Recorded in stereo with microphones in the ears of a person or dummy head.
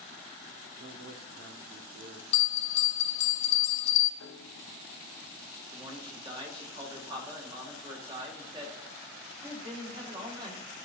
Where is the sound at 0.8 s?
90° right, 1.3 m.